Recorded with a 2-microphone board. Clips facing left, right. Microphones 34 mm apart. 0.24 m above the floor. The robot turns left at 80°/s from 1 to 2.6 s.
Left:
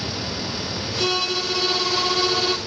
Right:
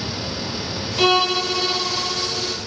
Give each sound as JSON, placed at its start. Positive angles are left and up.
{"t": 1.0, "sound": "a violin", "azimuth_deg": -120, "distance_m": 1.4}